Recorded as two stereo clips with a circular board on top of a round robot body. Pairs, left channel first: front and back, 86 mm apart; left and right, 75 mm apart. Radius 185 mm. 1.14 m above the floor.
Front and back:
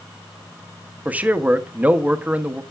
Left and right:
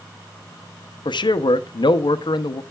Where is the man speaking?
105° left, 0.8 m.